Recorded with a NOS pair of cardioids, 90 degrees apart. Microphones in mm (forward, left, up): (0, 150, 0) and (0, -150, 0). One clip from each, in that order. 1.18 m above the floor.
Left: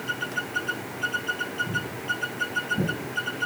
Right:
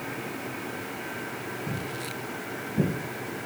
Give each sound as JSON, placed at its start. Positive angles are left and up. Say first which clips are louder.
{"t": 1.7, "sound": "footsteps", "louder": "left 5 dB", "azimuth_deg": -10, "distance_m": 3.5}